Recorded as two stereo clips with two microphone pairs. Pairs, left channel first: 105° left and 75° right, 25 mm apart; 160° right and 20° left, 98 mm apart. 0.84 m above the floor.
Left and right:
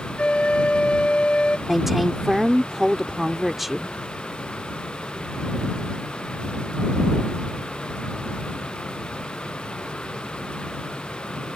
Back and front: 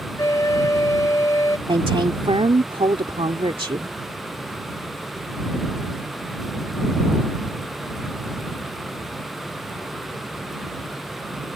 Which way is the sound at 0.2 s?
145° left.